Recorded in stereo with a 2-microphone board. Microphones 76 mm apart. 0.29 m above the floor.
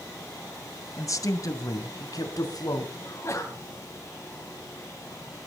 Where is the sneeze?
40° left (ahead or behind), 2 m.